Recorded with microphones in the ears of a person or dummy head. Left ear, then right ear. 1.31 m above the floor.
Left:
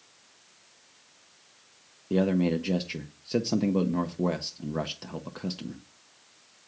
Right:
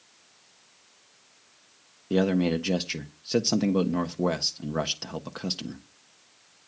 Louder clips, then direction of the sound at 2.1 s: Right 2 dB; 15° right (ahead or behind).